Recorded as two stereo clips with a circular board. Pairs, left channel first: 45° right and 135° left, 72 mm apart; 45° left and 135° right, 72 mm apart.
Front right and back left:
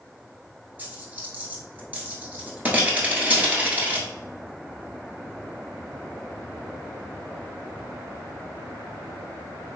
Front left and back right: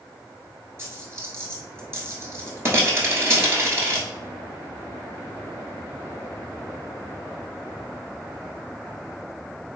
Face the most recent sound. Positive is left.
turn(degrees=-170)